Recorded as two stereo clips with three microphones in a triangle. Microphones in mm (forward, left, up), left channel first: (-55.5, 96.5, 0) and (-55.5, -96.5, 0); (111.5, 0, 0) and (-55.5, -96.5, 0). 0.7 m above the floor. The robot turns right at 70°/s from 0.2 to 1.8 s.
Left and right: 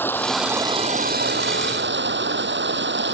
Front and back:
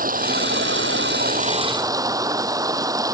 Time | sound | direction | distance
0.0 | running water | 170° left | ?